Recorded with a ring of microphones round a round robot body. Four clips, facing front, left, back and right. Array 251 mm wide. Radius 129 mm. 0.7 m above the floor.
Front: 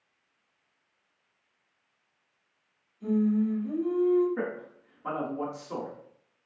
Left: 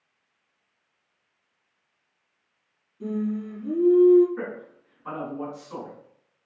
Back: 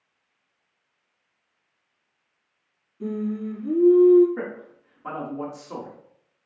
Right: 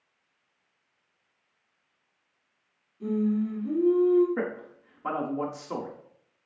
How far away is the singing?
About 4.5 m.